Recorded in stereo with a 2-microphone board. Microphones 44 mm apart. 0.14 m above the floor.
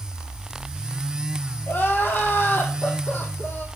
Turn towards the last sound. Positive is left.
turn(degrees=50)  # may be behind; listen again after turning